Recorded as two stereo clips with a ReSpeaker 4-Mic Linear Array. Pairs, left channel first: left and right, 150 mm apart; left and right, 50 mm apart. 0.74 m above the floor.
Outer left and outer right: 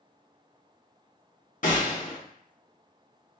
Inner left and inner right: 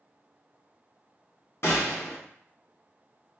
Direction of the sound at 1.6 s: 60° left (ahead or behind).